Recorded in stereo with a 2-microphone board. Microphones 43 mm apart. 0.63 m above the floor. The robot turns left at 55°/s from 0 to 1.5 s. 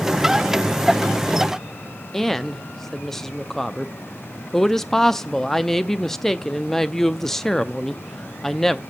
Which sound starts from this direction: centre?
A woman speaking, at 2.1 s.